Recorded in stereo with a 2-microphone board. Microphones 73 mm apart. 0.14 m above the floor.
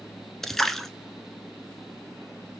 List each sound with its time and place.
0.4 s a splash: 5° left (ahead or behind), 0.7 m